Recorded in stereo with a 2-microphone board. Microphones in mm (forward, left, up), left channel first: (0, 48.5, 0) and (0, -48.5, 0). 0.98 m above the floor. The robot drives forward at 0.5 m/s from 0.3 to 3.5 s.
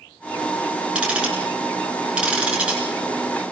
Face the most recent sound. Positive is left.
turn(degrees=-10)  # may be behind; listen again after turning